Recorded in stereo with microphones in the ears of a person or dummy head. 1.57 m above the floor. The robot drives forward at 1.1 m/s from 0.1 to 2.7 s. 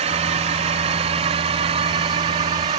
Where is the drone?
30° right (ahead or behind); by 2.8 s 25° right (ahead or behind).